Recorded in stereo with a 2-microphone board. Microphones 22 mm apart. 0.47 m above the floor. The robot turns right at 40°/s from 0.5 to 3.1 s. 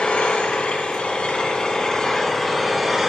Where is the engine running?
95° left, 3.5 m; by 3.1 s 165° right, 3.5 m.